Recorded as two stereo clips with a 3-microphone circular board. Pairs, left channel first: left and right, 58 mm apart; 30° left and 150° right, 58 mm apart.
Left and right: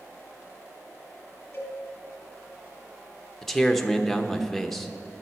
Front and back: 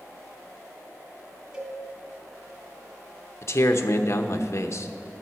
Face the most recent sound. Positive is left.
turn(degrees=5)